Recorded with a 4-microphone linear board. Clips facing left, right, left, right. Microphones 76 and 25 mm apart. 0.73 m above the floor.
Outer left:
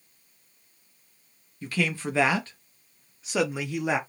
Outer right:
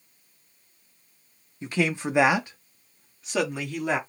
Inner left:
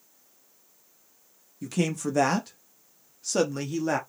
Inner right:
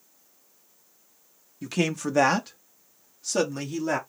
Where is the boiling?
No boiling in this recording.